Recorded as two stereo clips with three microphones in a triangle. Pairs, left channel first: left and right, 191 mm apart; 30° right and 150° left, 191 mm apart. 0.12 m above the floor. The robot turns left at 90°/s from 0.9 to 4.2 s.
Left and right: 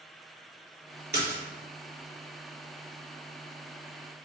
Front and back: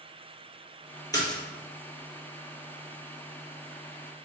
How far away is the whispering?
I don't hear whispering.